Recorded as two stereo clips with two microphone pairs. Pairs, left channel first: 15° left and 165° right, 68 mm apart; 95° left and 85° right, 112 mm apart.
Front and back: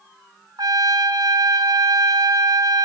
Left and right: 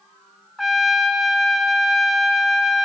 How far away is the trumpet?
About 2.5 m.